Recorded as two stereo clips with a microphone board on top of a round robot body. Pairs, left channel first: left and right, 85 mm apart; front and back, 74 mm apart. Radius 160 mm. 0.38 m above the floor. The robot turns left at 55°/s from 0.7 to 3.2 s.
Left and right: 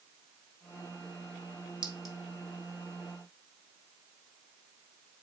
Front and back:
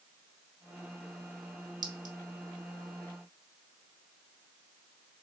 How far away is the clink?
About 1.2 m.